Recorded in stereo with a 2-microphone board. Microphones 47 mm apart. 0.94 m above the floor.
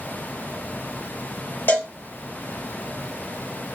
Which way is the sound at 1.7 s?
45° left (ahead or behind).